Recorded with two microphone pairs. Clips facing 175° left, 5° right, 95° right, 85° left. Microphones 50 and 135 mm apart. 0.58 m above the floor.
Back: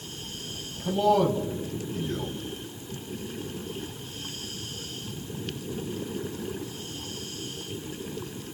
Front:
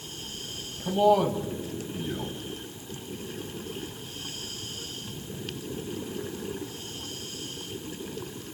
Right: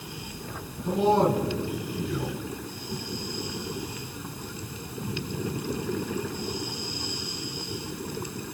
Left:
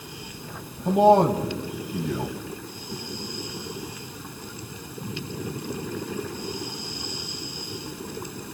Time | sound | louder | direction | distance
0.8 | a man speaking | front 1 dB, left 5 dB | 75° left | 4.5 m